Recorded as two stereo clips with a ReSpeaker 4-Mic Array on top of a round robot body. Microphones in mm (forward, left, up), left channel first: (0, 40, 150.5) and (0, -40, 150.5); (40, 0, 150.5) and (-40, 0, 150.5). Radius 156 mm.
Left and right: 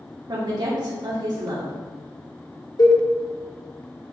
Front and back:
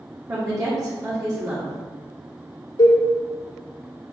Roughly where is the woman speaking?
Behind right.